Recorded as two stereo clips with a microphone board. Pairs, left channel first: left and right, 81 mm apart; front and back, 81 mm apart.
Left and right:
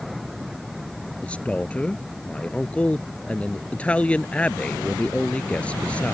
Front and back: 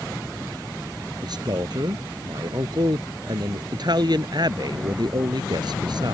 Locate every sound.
1.2 s a man speaking: 165° left